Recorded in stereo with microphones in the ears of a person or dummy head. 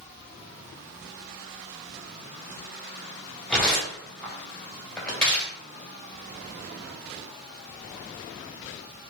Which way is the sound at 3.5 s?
10° left (ahead or behind).